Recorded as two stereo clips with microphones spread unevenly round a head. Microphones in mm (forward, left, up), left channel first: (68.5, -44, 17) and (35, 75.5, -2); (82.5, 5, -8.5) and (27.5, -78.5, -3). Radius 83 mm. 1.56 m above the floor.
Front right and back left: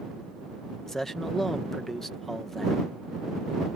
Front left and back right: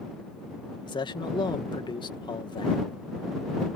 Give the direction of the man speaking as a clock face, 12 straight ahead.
12 o'clock.